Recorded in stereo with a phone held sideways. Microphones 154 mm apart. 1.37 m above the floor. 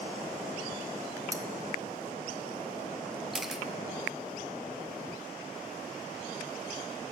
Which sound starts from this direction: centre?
A camera shutter, at 3.3 s.